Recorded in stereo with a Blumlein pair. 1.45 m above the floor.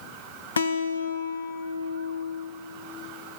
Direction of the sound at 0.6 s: 70° left.